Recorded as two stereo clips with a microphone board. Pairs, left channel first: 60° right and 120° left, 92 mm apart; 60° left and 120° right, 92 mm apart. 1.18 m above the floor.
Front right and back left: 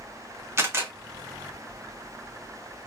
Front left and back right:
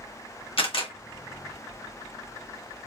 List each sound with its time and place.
0.6 s a camera shutter: 60° left, 1.3 m